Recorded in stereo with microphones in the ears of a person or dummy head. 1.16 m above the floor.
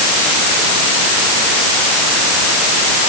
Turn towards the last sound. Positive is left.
No sound to turn to.